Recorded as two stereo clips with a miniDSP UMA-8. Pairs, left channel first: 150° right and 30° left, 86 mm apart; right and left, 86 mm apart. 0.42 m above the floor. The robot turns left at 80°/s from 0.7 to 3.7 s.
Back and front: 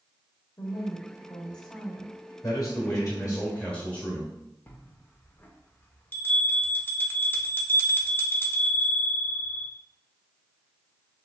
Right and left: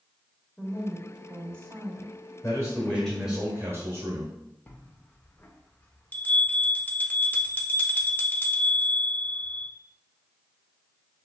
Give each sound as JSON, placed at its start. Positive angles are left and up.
{"t": 0.6, "sound": "a woman speaking", "azimuth_deg": -160, "distance_m": 1.1}
{"t": 2.4, "sound": "a man speaking", "azimuth_deg": -120, "distance_m": 1.4}
{"t": 4.7, "sound": "a bell", "azimuth_deg": -125, "distance_m": 0.5}